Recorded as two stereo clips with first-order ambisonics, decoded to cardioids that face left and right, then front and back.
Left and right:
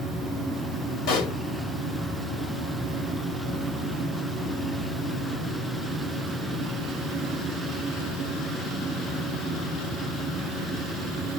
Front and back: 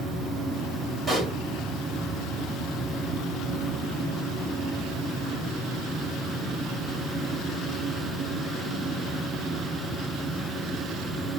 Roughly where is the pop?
Left.